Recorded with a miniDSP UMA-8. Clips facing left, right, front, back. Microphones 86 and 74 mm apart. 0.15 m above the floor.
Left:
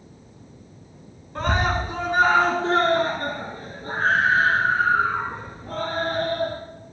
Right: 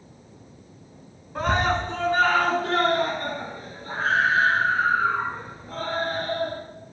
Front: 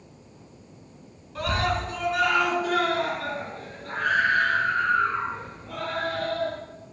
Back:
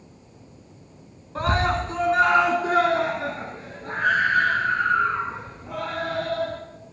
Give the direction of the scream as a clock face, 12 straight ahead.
6 o'clock.